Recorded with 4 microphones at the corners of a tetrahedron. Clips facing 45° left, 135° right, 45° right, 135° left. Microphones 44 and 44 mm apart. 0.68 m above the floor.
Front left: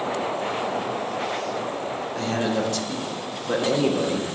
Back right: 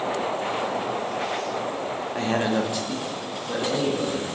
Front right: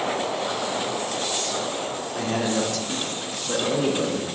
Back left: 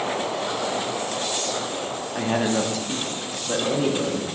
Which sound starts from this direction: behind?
A man speaking, at 2.1 s.